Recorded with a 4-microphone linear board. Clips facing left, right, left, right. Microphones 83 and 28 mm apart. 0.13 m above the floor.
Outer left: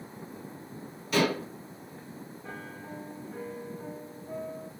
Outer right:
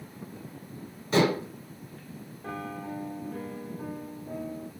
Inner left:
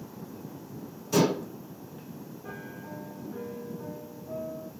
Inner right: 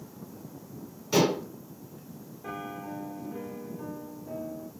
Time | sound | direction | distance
1.1 | dishes clattering | 25° right (ahead or behind) | 2 m
2.4 | a piano | 60° right (ahead or behind) | 1.2 m